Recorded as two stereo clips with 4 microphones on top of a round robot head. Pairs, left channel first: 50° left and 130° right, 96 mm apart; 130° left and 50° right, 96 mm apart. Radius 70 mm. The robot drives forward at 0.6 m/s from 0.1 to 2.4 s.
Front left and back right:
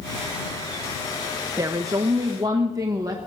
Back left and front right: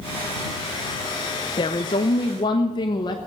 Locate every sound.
1.6 s a woman speaking: 175° left, 0.6 m